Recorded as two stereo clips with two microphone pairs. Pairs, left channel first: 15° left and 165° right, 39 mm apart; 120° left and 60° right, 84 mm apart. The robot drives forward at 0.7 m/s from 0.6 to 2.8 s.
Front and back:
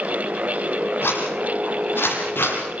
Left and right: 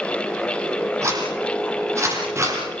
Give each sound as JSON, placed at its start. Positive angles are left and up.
{"t": 1.0, "sound": "a zipper", "azimuth_deg": -5, "distance_m": 8.0}